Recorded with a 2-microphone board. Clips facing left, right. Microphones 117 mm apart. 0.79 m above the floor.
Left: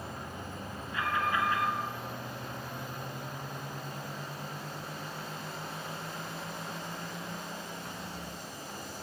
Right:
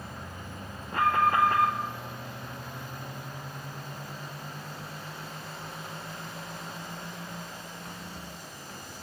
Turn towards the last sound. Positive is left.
turn(degrees=-55)  # may be behind; listen again after turning